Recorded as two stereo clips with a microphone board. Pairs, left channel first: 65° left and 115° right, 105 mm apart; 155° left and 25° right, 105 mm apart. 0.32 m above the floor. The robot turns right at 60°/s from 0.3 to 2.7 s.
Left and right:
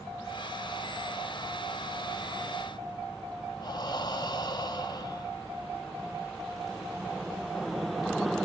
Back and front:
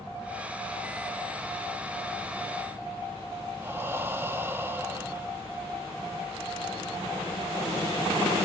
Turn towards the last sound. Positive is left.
turn(degrees=40)